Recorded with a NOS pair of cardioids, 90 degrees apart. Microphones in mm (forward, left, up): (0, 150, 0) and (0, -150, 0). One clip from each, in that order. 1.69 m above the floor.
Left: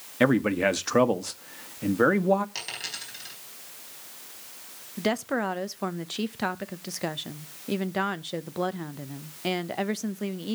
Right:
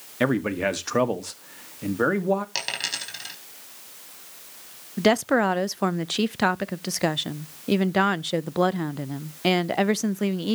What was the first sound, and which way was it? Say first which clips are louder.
A man speaking: left 1 dB; 5° left.